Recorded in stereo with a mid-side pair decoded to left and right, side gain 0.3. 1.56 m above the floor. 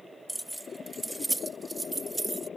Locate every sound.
0.3 s keys jangling: 15° right; by 2.5 s 35° right